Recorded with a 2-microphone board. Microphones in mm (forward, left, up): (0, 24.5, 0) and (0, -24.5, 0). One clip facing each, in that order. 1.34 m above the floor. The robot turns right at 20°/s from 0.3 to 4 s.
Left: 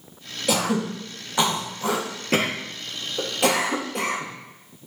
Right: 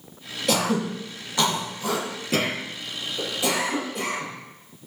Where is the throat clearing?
5° left (ahead or behind), 2.0 m; by 4.9 s 75° left (ahead or behind), 2.0 m.